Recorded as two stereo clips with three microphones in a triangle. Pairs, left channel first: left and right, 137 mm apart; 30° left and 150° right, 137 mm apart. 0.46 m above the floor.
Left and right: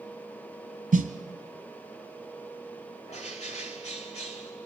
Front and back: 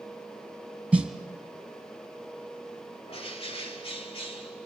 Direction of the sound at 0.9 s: 70° right.